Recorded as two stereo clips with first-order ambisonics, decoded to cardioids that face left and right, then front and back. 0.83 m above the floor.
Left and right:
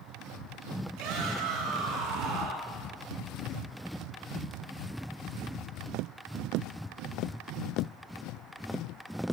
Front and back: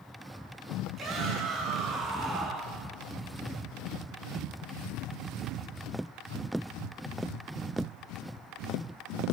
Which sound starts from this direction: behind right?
A shout, at 1.0 s.